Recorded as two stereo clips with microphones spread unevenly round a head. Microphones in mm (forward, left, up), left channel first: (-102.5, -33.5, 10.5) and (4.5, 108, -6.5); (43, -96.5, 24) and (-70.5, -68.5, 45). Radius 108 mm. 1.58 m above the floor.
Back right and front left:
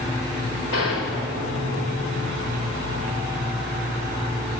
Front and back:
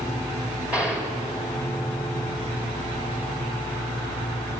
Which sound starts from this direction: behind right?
A gunshot, at 0.7 s.